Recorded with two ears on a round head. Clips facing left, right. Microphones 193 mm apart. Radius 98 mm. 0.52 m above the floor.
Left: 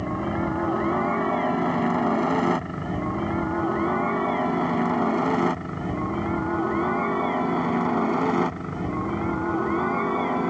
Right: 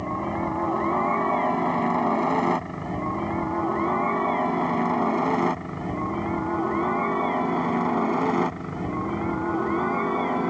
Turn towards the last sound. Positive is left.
turn(degrees=0)  # may be behind; listen again after turning